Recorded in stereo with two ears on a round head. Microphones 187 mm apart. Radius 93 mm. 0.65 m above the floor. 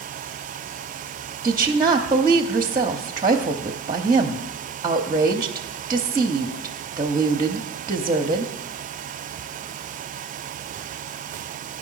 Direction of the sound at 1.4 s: 20° right (ahead or behind).